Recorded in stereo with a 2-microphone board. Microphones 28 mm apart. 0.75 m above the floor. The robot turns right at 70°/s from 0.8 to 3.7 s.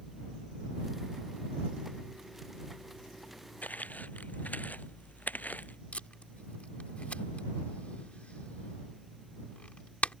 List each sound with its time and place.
3.6 s footsteps: 80° left
5.9 s tape being pulled: 55° left (ahead or behind)